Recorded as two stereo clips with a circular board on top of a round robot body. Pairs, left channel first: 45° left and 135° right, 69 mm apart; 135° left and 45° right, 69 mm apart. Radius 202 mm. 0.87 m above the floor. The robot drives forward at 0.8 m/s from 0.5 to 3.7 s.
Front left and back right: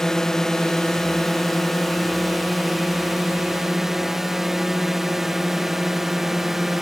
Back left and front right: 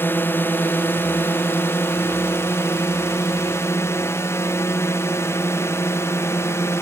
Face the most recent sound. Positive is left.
turn(degrees=140)